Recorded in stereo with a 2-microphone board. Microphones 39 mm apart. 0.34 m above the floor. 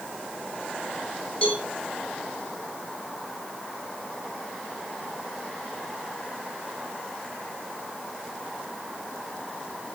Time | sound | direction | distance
1.4 | a cowbell | 30° left (ahead or behind) | 3 m